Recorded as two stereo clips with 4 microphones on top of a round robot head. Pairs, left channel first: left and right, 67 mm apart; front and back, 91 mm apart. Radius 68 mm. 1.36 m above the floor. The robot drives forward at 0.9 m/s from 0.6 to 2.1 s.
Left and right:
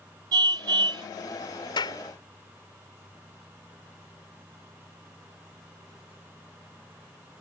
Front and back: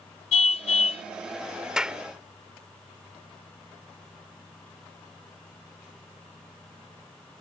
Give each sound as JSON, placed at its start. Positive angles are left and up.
{"t": 0.3, "sound": "a car horn", "azimuth_deg": -40}
{"t": 1.8, "sound": "a clap", "azimuth_deg": 95}